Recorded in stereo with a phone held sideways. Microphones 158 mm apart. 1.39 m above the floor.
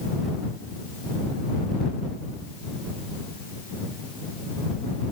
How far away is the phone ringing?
I don't hear a phone ringing.